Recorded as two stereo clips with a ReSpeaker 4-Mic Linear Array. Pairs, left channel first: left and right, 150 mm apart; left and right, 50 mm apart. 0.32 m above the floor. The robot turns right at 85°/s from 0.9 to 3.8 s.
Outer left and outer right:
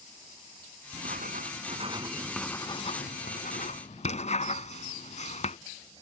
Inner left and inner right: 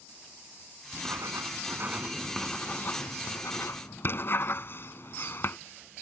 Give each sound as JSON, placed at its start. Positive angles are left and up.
{"t": 0.9, "sound": "writing", "azimuth_deg": -120}